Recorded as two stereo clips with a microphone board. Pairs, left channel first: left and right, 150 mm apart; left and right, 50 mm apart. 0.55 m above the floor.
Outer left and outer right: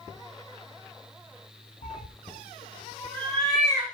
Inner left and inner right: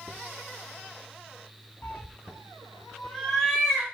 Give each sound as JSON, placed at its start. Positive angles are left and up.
{"t": 1.8, "sound": "a cat meowing", "side_deg": 65, "distance_m": 0.8}